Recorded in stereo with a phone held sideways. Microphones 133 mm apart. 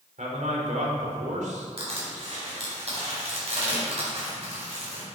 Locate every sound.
0.2 s a man speaking: 70° right (ahead or behind), 3 m
1.8 s crushing: 55° right (ahead or behind), 4.5 m